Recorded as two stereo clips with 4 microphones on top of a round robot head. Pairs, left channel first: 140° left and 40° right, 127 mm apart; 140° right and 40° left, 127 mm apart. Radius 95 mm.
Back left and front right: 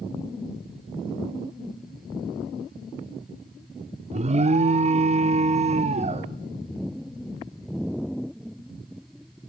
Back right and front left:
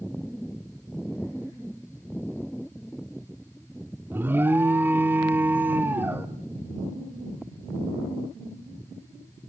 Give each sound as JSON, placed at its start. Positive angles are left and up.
{"t": 4.1, "sound": "an alarm", "azimuth_deg": -30, "distance_m": 1.1}